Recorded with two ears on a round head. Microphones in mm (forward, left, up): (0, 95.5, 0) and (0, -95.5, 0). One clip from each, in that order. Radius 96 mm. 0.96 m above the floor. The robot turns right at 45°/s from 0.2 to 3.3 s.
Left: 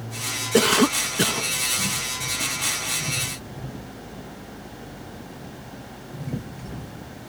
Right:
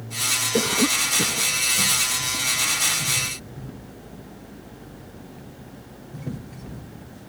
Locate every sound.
0.5 s a cough: 90° left; by 1.5 s 135° left